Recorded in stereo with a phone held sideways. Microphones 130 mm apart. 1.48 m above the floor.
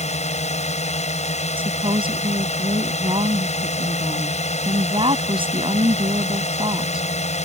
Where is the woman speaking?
40° right (ahead or behind).